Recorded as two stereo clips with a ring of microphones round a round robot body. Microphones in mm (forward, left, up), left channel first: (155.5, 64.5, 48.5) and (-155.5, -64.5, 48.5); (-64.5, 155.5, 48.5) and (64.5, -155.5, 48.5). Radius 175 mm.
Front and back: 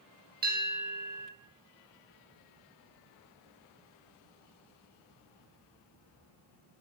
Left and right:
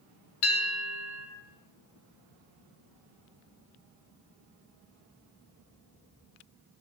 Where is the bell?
140° left, 3.5 m.